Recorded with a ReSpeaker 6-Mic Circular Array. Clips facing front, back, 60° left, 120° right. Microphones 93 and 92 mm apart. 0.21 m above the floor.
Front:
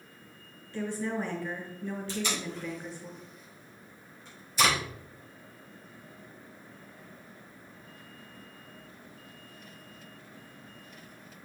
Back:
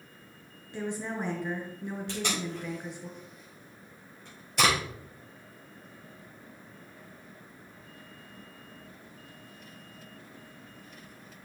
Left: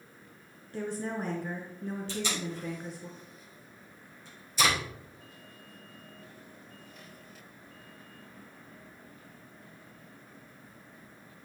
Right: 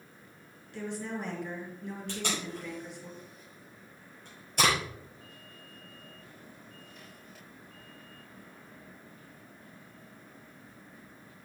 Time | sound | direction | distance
0.7 | a woman speaking | 110° left | 4 m
2.1 | tape being pulled | 155° right | 5 m